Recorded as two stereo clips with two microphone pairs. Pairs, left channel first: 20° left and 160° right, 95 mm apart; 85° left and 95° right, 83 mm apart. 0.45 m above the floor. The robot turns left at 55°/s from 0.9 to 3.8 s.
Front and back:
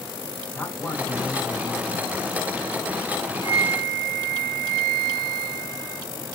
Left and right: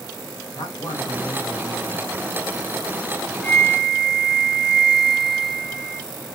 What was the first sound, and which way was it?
A man speaking, 90° left.